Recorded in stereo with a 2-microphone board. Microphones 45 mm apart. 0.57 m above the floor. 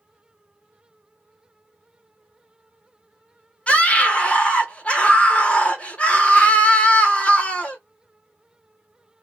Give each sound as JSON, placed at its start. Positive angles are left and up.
{"t": 3.7, "sound": "a scream", "side_deg": 25, "distance_m": 0.9}